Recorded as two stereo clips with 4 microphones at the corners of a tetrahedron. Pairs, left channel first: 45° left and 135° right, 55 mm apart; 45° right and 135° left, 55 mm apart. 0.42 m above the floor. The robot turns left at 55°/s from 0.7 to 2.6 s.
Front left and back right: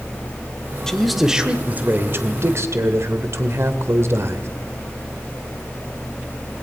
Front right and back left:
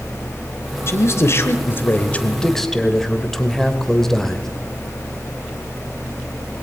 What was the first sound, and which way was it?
A man speaking, 30° right.